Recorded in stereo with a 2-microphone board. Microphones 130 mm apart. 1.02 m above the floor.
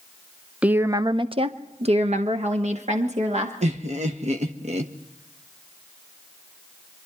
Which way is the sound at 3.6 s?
60° right (ahead or behind).